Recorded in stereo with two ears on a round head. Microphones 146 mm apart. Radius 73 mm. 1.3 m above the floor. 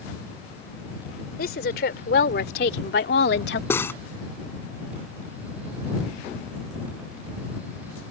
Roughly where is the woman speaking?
Left.